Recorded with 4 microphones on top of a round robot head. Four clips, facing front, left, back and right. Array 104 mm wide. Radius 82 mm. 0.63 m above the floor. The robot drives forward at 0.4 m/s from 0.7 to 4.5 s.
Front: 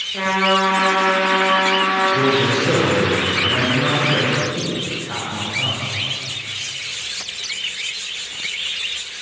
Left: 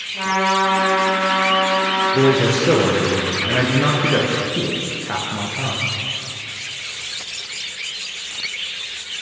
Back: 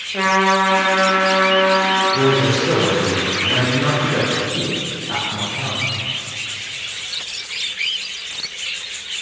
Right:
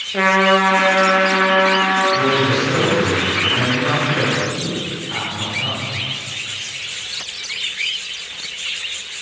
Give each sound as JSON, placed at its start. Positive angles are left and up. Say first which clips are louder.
{"t": 0.1, "sound": "a trumpet", "louder": "right 4 dB, back 2 dB", "azimuth_deg": -105, "distance_m": 5.0}
{"t": 2.1, "sound": "a man speaking", "louder": "left 1 dB, back 1 dB", "azimuth_deg": 90, "distance_m": 9.5}